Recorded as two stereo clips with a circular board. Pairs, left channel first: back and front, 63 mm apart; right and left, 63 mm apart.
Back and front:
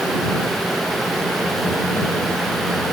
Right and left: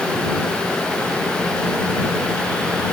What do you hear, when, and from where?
Only background noise.